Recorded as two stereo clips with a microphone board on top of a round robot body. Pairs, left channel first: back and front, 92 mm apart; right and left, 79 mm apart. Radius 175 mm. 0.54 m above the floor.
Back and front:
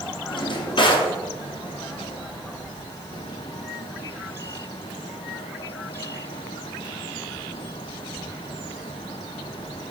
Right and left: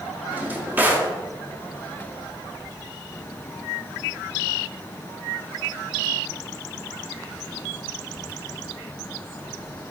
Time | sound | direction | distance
0.3 | a drawer | 155° left | 0.9 m